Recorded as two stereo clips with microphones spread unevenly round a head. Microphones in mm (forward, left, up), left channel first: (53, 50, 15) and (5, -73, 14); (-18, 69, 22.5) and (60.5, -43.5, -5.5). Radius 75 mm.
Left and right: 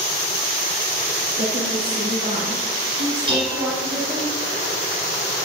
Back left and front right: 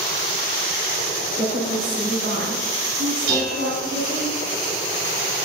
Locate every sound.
1.4 s a woman speaking: 85° right, 8.5 m; by 4.3 s 60° right, 6.5 m
3.3 s dishes clattering: 60° right, 8.5 m